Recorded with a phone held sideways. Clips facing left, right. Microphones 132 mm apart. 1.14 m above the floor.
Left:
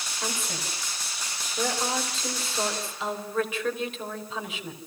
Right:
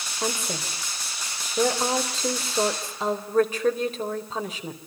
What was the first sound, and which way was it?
A woman speaking, 40° right (ahead or behind).